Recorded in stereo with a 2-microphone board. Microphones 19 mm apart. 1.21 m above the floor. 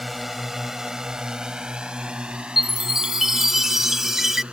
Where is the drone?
5° right (ahead or behind); by 4.5 s 85° right.